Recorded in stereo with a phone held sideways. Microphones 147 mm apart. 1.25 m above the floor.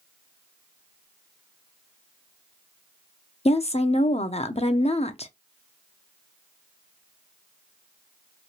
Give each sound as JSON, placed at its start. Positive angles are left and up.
{"t": 3.5, "sound": "a woman speaking", "side_deg": 45, "distance_m": 0.6}